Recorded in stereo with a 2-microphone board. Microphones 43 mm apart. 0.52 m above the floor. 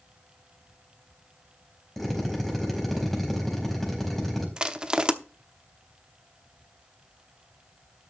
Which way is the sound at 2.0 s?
5° left (ahead or behind).